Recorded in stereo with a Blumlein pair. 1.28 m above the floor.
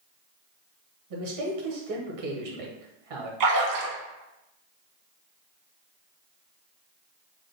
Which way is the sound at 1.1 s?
55° right.